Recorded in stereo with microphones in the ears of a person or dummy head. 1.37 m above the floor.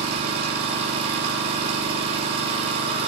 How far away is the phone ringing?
No phone ringing in this recording.